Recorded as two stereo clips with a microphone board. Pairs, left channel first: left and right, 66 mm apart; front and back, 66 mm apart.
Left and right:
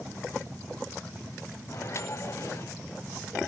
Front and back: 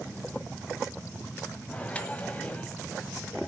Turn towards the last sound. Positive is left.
turn(degrees=65)